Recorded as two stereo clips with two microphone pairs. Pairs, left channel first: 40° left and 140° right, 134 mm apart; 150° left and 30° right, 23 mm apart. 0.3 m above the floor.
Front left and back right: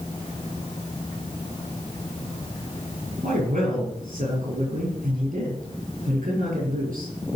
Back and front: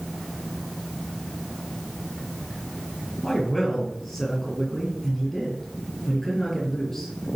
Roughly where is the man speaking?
Behind right.